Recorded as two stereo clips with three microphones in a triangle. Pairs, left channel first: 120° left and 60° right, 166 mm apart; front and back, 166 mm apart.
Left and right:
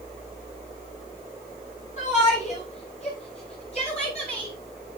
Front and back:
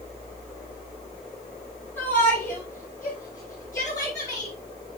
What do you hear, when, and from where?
2.0 s a shout: 75° left, 5 m; by 4.5 s 65° left, 7 m